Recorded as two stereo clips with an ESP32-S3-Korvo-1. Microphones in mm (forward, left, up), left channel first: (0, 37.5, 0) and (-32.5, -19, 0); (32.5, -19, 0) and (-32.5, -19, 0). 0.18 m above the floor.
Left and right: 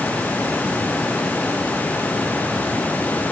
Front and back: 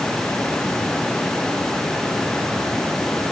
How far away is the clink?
No clink in this recording.